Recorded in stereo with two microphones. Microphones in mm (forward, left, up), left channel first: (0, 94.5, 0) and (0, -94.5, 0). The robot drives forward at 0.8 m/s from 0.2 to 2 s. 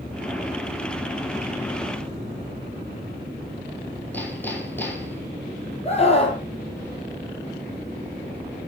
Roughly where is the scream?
Left.